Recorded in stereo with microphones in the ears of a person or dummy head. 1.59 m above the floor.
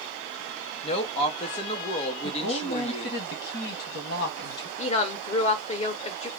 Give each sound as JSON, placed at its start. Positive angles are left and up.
{"t": 0.8, "sound": "a woman speaking", "side_deg": 35, "distance_m": 0.8}
{"t": 2.2, "sound": "a woman speaking", "side_deg": 65, "distance_m": 1.4}
{"t": 4.8, "sound": "a woman speaking", "side_deg": 40, "distance_m": 0.8}